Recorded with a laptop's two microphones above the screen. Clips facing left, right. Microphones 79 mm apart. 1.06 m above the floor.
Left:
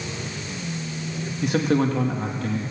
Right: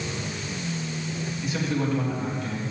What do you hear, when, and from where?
1.4 s a man speaking: 65° left (ahead or behind), 1.5 m